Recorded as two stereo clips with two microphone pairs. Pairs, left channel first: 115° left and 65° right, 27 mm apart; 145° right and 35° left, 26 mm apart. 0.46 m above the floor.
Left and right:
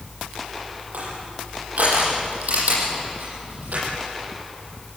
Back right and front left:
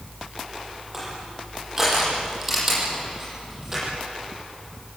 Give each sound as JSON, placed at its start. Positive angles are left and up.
{"t": 0.9, "sound": "crushing", "azimuth_deg": -45, "distance_m": 9.0}